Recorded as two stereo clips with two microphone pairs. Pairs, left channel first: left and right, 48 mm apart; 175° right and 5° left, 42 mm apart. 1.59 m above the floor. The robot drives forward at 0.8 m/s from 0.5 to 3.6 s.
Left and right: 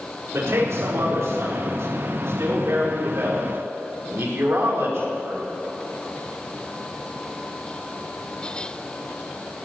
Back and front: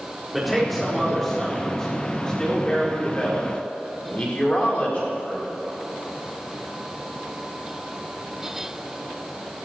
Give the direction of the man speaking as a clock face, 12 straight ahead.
3 o'clock.